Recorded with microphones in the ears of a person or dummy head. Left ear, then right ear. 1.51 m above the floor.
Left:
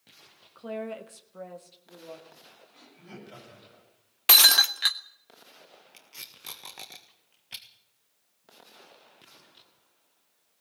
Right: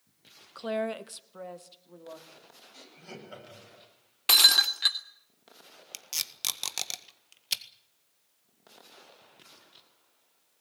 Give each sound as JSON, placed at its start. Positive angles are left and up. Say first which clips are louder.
{"t": 0.6, "sound": "a woman speaking", "louder": "right 4 dB", "side_deg": -40, "distance_m": 0.9}
{"t": 2.7, "sound": "laughter", "louder": "right 3 dB", "side_deg": -85, "distance_m": 9.5}
{"t": 4.3, "sound": "breaking glass", "louder": "left 2 dB", "side_deg": 25, "distance_m": 1.2}
{"t": 5.9, "sound": "tape being pulled", "louder": "right 11 dB", "side_deg": -75, "distance_m": 1.7}